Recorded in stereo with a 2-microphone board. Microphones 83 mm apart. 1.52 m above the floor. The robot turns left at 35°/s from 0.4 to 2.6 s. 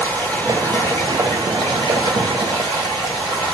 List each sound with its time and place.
0.0 s running water: 150° left, 2 m; by 3.5 s 70° left, 2 m